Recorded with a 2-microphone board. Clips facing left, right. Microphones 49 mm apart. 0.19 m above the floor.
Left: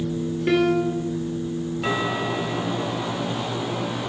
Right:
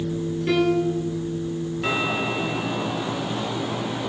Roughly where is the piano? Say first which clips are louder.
Left 1 dB; left.